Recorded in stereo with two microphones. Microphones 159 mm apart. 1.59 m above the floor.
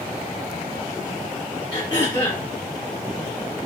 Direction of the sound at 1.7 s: 25° left (ahead or behind).